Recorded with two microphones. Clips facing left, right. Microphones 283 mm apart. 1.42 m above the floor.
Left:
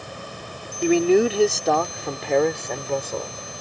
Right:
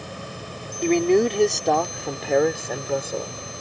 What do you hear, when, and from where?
0.8 s a man speaking: 5° left (ahead or behind); by 3.4 s 10° right (ahead or behind)